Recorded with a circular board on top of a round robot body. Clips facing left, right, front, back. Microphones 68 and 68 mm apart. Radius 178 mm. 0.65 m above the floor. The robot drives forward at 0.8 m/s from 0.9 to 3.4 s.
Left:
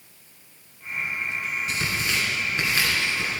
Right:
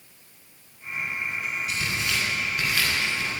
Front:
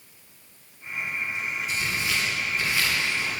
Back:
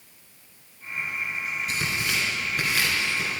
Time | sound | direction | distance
1.7 | tearing paper | 145° left | 3 m